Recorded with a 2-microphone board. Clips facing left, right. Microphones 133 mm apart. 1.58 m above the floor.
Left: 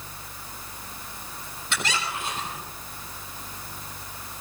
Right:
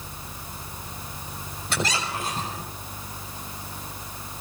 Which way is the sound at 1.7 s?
40° right (ahead or behind).